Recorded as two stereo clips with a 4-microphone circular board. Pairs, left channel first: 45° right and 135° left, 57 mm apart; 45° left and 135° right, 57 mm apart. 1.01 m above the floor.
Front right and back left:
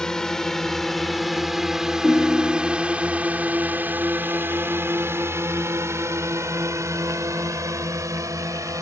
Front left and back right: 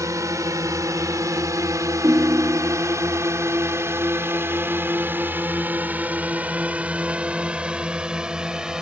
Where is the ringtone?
120° right.